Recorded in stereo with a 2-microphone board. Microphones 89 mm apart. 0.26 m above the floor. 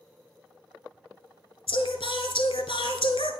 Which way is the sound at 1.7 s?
85° left.